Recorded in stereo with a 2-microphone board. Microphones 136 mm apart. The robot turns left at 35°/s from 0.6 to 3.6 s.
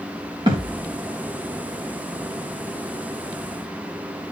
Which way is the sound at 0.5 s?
35° right (ahead or behind).